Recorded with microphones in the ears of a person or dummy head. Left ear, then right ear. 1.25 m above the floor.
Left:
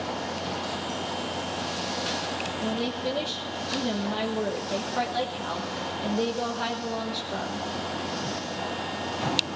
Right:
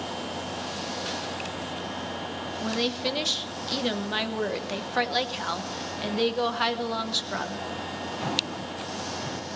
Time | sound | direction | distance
2.6 | a woman speaking | 55° right (ahead or behind) | 1.0 m